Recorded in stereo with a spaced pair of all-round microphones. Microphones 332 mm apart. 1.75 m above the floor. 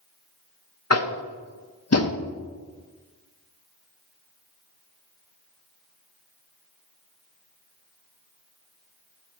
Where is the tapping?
50° left (ahead or behind), 0.8 m.